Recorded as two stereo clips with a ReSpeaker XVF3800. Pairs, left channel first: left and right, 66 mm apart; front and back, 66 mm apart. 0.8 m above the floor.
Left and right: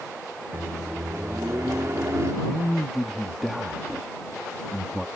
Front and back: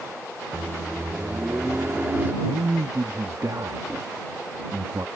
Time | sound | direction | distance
0.5 | a microwave | 125° right | ?
2.4 | a man speaking | 175° right | ?